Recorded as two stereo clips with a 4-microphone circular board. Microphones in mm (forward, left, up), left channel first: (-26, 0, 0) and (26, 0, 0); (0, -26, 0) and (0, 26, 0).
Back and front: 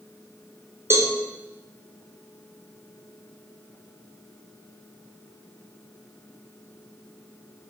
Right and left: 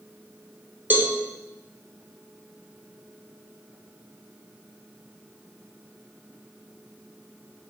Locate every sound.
0.9 s a cowbell: 35° left, 1.3 m